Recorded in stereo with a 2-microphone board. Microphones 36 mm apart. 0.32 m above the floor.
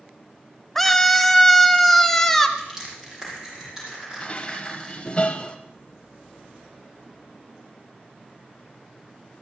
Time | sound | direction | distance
0.8 | a scream | 10° left (ahead or behind) | 0.9 m
2.6 | crushing | 15° right (ahead or behind) | 8 m
4.2 | dishes clattering | 30° left (ahead or behind) | 1.0 m